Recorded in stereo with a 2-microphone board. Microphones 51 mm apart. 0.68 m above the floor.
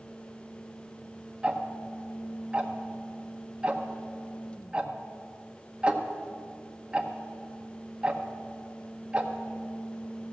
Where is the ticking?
20° right (ahead or behind), 0.8 m.